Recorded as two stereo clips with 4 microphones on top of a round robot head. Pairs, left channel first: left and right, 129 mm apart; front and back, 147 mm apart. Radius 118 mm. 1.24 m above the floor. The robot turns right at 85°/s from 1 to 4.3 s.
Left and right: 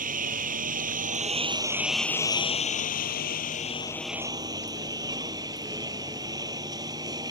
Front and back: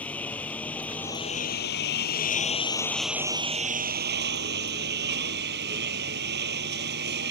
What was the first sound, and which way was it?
A lawn mower, 80° right.